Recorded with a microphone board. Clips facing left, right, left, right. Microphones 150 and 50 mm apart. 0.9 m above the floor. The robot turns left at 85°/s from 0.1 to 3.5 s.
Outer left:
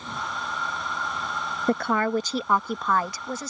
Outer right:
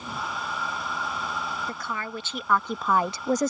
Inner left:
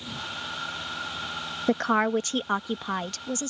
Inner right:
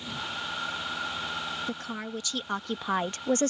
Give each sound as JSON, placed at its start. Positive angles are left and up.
{"t": 1.7, "sound": "a woman speaking", "azimuth_deg": 95}